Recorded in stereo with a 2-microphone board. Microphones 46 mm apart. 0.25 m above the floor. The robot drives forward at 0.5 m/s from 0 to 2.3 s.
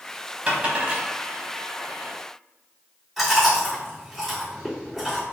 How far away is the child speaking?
I don't hear a child speaking.